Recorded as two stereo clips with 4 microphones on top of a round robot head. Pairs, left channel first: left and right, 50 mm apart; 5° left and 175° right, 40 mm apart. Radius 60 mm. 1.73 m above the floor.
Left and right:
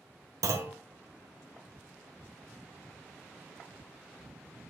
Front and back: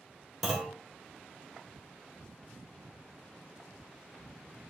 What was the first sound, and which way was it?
A clunk, 85° right.